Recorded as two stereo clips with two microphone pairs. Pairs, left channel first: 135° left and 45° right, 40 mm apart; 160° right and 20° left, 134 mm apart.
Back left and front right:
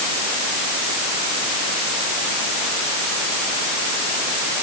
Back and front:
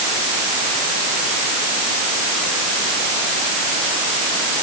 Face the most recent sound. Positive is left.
No sound to turn to.